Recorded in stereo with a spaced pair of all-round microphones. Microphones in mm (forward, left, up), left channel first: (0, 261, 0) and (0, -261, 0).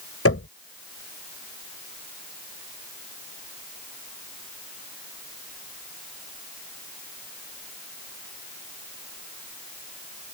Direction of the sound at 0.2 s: 25° left (ahead or behind).